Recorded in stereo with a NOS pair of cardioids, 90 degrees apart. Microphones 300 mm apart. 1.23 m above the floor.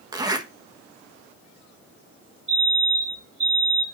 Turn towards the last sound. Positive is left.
turn(degrees=-20)